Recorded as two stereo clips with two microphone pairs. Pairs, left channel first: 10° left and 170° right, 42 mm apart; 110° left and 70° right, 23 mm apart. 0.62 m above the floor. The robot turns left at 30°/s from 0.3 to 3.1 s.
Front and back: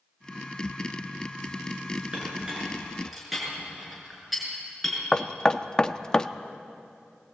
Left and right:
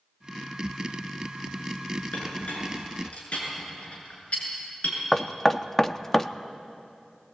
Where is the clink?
130° left, 6 m; by 5.0 s 105° left, 6 m.